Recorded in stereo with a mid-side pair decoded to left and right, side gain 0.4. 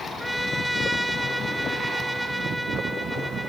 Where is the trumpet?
Straight ahead, 3.5 m.